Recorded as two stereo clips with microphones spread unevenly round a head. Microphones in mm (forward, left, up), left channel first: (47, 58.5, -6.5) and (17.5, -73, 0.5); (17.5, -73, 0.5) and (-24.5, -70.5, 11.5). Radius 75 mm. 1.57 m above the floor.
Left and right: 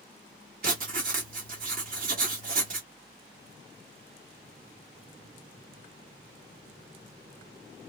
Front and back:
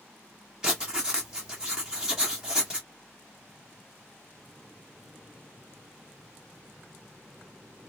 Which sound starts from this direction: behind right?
Writing, at 0.6 s.